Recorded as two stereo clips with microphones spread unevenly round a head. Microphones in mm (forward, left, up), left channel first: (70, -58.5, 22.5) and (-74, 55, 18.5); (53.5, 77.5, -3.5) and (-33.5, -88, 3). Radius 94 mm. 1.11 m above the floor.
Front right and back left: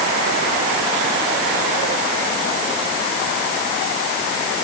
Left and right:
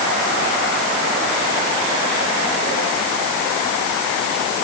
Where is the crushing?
No crushing in this recording.